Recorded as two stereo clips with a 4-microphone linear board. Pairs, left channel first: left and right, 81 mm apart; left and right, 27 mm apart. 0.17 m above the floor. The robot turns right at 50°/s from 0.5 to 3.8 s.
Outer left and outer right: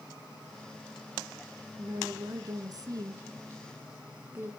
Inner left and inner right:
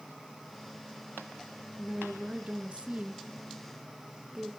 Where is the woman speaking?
135° right, 1.6 m; by 4.5 s 35° right, 1.6 m.